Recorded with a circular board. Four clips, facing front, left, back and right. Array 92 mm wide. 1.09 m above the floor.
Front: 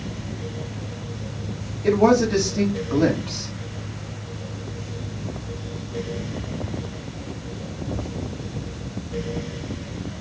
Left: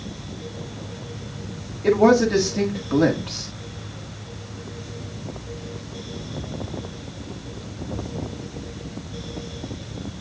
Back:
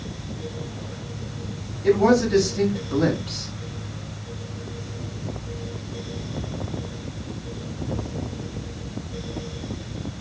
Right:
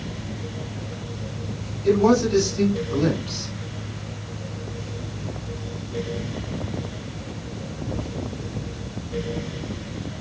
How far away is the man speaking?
About 1.9 m.